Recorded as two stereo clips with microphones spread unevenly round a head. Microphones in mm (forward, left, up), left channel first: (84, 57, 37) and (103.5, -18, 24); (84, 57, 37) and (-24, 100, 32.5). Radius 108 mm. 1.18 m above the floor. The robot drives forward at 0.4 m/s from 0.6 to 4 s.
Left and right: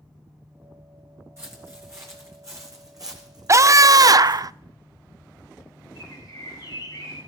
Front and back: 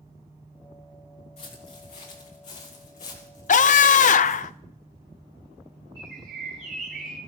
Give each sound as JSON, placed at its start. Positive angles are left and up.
{"t": 1.4, "sound": "footsteps", "azimuth_deg": -15, "distance_m": 4.0}
{"t": 3.5, "sound": "a scream", "azimuth_deg": -25, "distance_m": 0.7}
{"t": 6.0, "sound": "a bird", "azimuth_deg": -145, "distance_m": 8.5}